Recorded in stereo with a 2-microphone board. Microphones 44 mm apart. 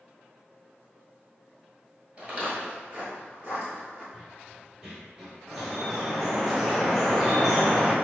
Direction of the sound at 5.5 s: 5° left (ahead or behind).